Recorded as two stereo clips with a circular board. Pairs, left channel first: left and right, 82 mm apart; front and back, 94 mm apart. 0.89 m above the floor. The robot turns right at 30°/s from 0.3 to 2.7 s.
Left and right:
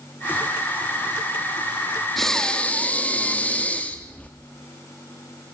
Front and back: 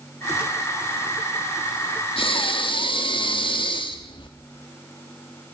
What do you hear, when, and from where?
2.2 s breathing: 5° left, 1.9 m; by 4.3 s 20° left, 1.9 m